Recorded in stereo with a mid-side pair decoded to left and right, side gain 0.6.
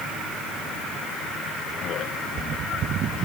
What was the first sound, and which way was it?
Only background noise.